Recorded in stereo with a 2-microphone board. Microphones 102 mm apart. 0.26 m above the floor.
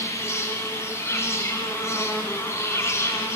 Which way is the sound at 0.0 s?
30° left (ahead or behind).